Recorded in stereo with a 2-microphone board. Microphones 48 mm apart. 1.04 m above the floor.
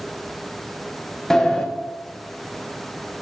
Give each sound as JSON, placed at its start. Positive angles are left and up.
{"t": 1.3, "sound": "a sliding door", "side_deg": 10, "distance_m": 1.1}